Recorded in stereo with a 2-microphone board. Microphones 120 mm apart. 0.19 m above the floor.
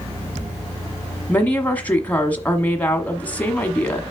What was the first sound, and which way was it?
A woman speaking, 15° left (ahead or behind).